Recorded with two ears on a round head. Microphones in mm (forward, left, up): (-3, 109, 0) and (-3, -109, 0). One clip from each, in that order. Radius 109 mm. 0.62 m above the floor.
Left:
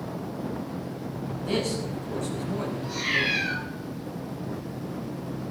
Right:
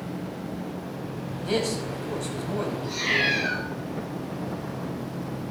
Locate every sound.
1.4 s a man speaking: 15° right (ahead or behind), 5 m
2.8 s a cat meowing: 10° right (ahead or behind), 10 m